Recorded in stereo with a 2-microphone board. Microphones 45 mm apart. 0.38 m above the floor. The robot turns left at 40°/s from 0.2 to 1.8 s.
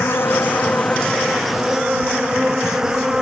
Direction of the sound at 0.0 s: 55° left.